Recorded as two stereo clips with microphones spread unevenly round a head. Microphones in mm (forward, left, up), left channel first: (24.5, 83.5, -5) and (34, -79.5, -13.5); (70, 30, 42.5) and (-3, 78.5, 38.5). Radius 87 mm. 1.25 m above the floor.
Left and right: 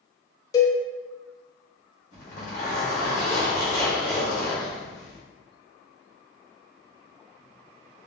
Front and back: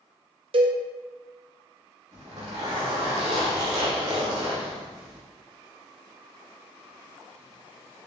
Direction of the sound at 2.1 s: 145° left.